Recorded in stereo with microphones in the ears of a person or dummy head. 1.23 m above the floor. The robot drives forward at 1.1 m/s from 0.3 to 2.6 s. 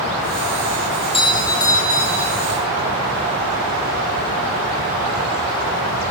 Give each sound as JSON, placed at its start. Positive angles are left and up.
{"t": 1.0, "sound": "a doorbell", "side_deg": 25, "distance_m": 1.7}